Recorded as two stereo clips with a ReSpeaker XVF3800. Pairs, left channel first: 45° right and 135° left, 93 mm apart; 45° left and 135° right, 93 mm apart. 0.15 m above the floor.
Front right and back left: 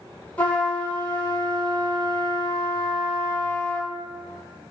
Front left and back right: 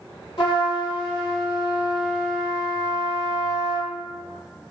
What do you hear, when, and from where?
0.4 s a trumpet: 25° left, 0.8 m